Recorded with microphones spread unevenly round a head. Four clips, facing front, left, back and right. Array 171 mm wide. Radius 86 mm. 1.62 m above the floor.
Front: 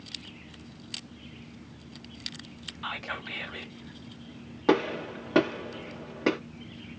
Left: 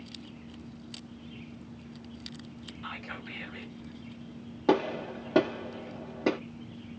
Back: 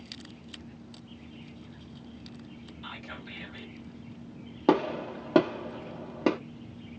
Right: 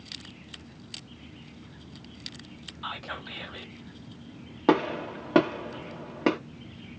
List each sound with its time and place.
2.8 s whispering: 30° right, 0.9 m
4.7 s a gunshot: 150° right, 1.1 m